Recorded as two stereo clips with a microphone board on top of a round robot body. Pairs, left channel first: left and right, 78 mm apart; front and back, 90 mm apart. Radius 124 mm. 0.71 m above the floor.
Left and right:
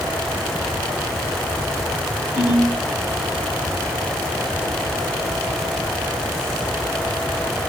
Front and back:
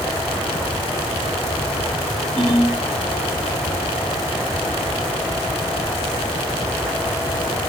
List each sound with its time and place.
2.4 s a ringtone: 80° left, 1.8 m